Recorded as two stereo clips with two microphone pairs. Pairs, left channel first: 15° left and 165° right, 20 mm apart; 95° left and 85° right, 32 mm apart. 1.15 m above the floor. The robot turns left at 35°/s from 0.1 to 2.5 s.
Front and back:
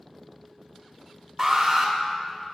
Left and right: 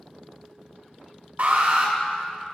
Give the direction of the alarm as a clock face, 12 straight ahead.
3 o'clock.